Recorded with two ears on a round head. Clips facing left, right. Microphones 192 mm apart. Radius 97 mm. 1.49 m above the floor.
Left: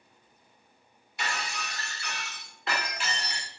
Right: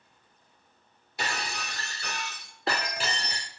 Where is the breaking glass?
30° right (ahead or behind), 2.0 m.